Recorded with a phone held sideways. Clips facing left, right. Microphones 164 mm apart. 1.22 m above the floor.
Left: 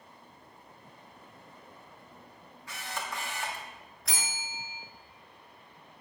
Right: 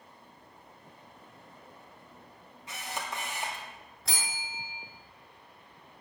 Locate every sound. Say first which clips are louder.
2.7 s a camera shutter: right 1 dB; 20° right (ahead or behind), 1.6 m
4.0 s a bell: even; 30° right (ahead or behind), 2.5 m